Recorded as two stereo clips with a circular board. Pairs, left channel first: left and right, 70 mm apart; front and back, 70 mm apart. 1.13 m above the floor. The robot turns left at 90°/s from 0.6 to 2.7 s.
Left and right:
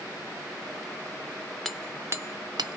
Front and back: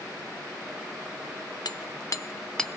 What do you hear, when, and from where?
1.6 s hammering: 5° left, 0.7 m; by 2.8 s 90° right, 0.7 m